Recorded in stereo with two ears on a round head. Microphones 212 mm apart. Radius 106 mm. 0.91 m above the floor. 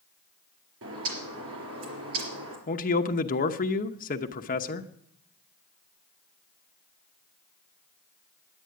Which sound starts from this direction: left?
A man speaking, at 2.7 s.